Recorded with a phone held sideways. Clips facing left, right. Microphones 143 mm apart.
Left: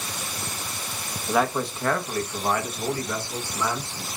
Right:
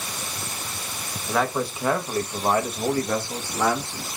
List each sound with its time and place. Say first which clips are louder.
1.3 s a man speaking: left 1 dB; 5° left (ahead or behind), 1.0 m; by 4.1 s 65° right (ahead or behind), 1.4 m